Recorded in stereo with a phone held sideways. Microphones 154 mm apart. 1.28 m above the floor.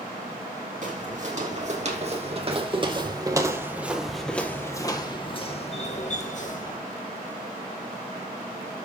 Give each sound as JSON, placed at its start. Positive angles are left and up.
{"t": 0.8, "sound": "footsteps", "side_deg": -55, "distance_m": 3.0}